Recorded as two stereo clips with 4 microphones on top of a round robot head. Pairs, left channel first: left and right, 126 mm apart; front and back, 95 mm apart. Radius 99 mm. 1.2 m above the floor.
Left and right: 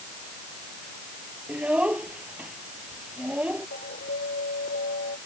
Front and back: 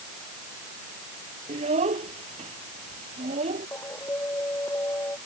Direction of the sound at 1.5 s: 170° right.